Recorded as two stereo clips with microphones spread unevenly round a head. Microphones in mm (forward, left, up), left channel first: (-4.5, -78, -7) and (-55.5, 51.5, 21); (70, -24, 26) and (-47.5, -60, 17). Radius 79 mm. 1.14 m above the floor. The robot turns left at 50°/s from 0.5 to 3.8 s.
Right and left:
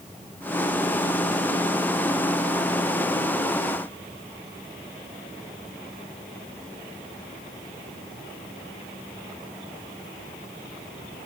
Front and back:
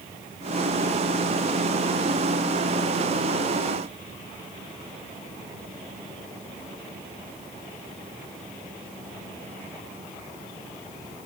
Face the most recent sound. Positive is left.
No sound to turn to.